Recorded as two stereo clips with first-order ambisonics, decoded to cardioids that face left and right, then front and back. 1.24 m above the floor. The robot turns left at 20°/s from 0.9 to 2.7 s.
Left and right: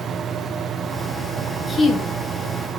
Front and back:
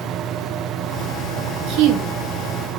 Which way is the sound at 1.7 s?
165° left.